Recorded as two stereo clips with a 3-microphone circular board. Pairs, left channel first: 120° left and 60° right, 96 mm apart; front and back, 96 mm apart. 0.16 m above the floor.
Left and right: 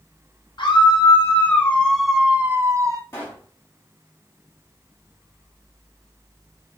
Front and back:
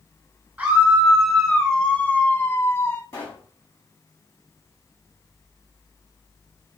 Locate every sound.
0.6 s a scream: 95° left, 1.7 m; by 3.0 s 50° right, 1.4 m
3.1 s a pop: 55° left, 5.5 m